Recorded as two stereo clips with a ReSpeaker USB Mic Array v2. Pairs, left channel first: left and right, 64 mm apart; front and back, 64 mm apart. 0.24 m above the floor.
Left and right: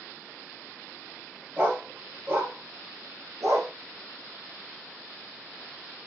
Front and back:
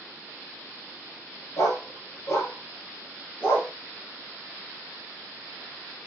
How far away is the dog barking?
About 1.9 m.